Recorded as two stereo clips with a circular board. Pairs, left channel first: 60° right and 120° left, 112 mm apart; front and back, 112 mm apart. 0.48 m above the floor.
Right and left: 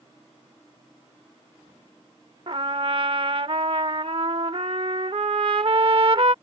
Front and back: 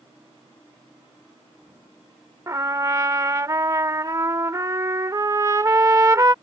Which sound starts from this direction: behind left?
A trumpet, at 2.5 s.